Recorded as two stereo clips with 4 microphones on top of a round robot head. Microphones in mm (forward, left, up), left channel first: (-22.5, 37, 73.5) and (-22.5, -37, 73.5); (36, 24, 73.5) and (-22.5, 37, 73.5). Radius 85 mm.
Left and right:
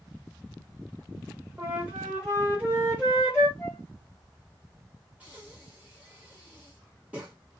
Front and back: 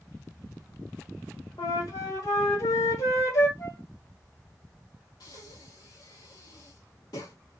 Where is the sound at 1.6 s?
15° right, 1.4 m.